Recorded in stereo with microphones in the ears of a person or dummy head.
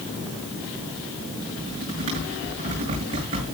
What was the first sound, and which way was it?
Typing on a keyboard, 40° right (ahead or behind).